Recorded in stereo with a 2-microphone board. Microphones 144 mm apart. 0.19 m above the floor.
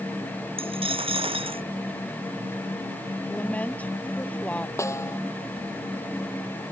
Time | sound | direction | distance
0.6 | a dropped coin | 40° right (ahead or behind) | ?
3.3 | a woman speaking | 10° left (ahead or behind) | ?
4.8 | a snare drum | 20° left (ahead or behind) | ?